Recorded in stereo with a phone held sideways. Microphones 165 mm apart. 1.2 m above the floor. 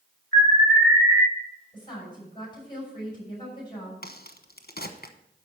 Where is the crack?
65° left (ahead or behind), 1.0 m.